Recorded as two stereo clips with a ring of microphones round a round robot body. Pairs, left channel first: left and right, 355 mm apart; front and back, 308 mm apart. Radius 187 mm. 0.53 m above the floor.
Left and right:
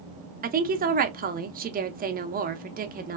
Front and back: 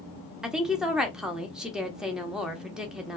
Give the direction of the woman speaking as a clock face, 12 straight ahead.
3 o'clock.